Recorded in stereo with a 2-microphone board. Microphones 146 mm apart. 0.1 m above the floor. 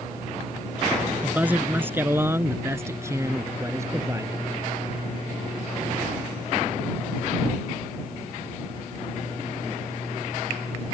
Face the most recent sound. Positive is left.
turn(degrees=-20)  # may be behind; listen again after turning